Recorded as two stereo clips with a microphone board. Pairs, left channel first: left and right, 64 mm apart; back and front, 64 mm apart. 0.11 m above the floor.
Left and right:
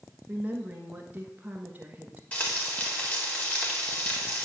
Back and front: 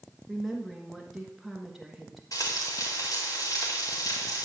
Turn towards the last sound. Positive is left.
turn(degrees=155)